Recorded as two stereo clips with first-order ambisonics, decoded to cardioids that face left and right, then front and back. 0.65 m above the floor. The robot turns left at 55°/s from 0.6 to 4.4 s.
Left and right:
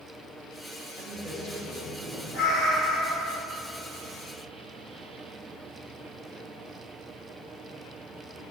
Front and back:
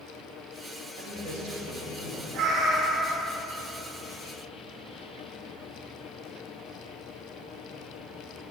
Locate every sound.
1.0 s a man speaking: 170° right, 3 m; by 2.2 s 120° left, 3 m
2.3 s a cat meowing: 135° left, 2.5 m; by 3.3 s 80° left, 2.5 m